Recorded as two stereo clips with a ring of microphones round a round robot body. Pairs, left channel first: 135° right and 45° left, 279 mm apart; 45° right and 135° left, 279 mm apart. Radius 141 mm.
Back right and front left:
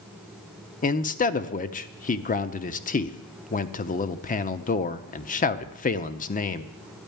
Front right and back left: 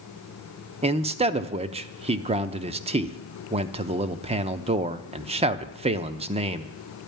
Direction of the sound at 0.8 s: 175° right.